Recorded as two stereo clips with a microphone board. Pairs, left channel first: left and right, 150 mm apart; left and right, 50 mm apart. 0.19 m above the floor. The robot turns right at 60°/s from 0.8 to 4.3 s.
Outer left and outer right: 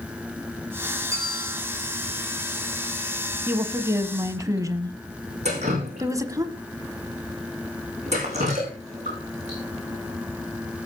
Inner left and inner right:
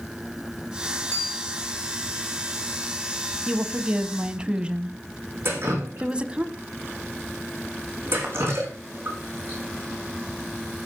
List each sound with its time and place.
1.1 s a bell: 35° left (ahead or behind), 6 m; by 1.6 s 65° left (ahead or behind), 6 m
3.5 s a woman speaking: 15° right (ahead or behind), 1.1 m; by 6.5 s 20° right (ahead or behind), 1.1 m
5.5 s dripping: 50° right (ahead or behind), 6 m